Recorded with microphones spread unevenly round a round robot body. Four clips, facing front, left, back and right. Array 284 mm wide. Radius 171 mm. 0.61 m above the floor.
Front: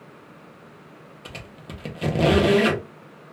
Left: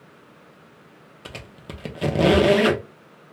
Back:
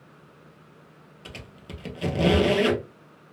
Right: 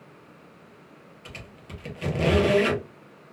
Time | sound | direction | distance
1.2 | a squeak | 65° left | 0.8 m